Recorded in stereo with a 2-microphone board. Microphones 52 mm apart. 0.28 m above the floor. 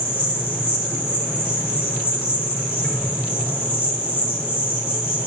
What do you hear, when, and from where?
0.0 s an insect: 35° right (ahead or behind), 6.5 m